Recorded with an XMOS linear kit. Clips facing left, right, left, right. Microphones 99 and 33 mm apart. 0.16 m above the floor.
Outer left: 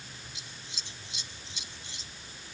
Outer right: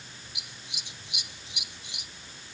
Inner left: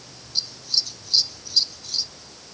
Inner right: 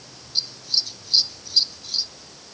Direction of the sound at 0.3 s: 15° right (ahead or behind).